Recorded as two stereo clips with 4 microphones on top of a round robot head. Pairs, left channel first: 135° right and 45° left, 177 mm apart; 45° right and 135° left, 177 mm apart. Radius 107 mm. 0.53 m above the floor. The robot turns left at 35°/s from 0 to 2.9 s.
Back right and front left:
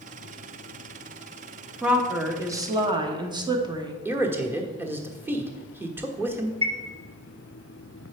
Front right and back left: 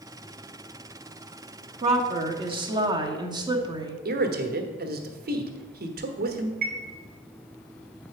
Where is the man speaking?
120° left, 1.2 m.